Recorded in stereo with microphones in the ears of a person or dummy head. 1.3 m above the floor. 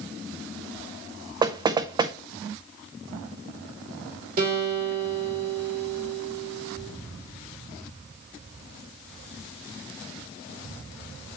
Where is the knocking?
20° right (ahead or behind), 0.5 m.